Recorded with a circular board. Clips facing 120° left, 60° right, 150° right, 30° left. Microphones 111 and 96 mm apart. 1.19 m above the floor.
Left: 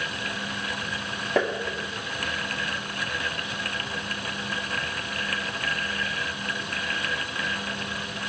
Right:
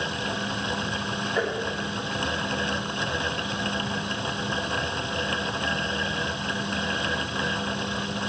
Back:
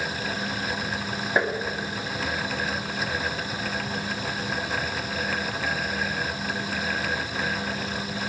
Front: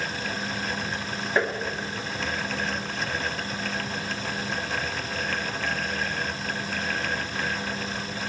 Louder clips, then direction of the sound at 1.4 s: Left 4 dB, back 1 dB; 130° left.